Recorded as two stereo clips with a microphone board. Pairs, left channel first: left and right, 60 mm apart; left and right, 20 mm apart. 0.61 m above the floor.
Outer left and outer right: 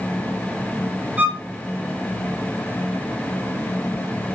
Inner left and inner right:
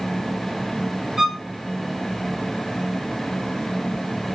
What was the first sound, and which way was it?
A violin, 25° right (ahead or behind).